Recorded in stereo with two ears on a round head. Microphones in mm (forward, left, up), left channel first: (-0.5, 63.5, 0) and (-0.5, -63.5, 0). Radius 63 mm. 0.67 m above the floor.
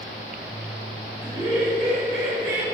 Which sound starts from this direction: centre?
Laughter, at 1.2 s.